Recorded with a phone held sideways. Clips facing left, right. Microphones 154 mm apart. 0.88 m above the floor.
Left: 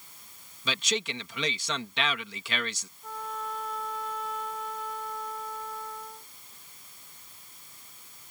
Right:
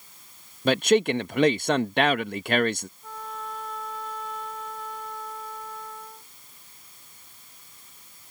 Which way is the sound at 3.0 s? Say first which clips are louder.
Left 1 dB; centre (ahead or behind).